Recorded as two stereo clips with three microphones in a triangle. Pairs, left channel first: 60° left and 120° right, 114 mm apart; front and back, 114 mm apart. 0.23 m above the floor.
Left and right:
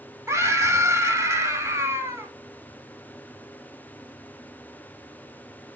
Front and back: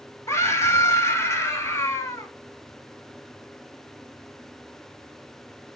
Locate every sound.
0.3 s a scream: 60° right, 1.5 m